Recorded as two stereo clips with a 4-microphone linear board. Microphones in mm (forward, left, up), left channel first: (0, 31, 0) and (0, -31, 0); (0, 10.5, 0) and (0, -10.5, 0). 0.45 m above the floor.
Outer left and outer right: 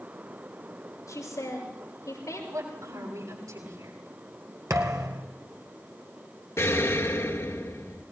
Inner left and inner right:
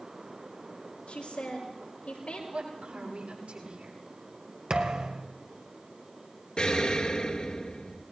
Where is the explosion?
55° left (ahead or behind), 1.9 m.